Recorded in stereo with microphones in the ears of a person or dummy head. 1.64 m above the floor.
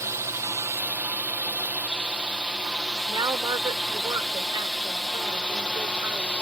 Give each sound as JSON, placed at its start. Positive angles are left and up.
{"t": 0.0, "sound": "a drone", "side_deg": -20}
{"t": 3.1, "sound": "a woman speaking", "side_deg": -25}